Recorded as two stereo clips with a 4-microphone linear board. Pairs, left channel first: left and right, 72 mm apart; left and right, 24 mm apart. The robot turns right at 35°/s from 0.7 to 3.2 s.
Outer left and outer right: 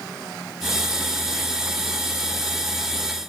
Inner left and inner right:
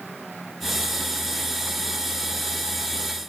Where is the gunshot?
I don't hear a gunshot.